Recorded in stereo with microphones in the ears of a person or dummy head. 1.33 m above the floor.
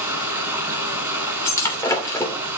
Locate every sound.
0.0 s running water: 15° right (ahead or behind), 6 m
1.4 s breaking glass: 20° left (ahead or behind), 2.5 m